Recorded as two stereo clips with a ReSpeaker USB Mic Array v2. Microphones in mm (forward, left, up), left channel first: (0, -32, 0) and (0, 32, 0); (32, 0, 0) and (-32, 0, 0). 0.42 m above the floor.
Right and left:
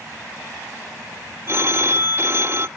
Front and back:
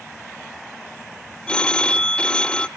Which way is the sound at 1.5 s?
70° left.